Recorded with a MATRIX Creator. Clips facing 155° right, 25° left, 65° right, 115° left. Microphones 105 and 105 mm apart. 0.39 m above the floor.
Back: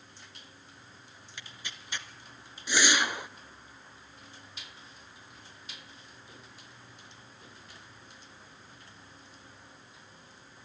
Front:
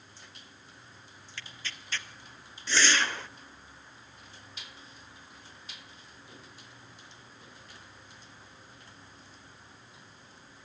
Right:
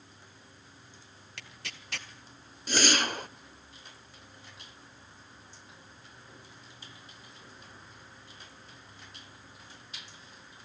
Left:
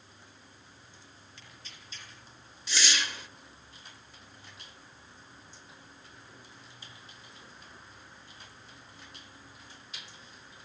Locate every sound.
1.4 s tearing paper: 85° right, 1.6 m
2.7 s a whoosh: 85° right, 0.6 m